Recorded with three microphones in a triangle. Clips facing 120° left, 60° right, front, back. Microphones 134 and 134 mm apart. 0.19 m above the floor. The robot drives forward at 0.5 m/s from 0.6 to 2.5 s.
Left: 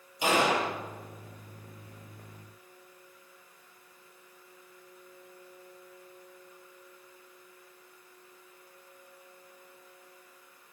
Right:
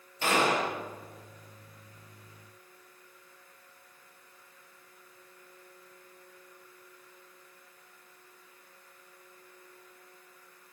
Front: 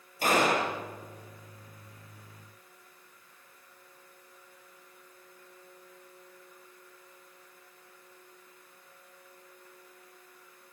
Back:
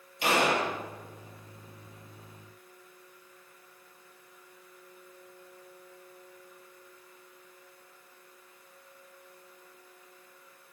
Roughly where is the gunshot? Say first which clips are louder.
Left 1 dB, front 1 dB; ahead left.